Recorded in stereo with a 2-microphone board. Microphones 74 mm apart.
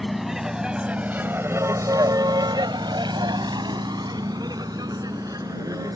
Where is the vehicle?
Centre (ahead or behind); by 6.0 s 55° right (ahead or behind).